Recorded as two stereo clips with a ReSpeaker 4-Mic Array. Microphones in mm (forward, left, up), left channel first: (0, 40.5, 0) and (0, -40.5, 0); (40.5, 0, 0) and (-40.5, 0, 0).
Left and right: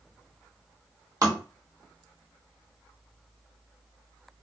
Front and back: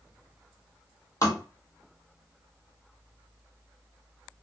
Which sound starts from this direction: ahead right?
Tapping, at 1.2 s.